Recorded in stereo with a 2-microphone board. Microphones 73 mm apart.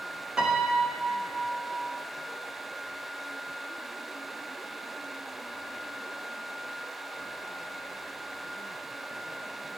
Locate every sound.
0.4 s a piano: 10° right (ahead or behind), 2 m